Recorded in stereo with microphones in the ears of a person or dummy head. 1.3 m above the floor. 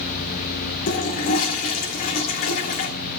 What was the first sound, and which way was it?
A toilet flushing, 45° left (ahead or behind).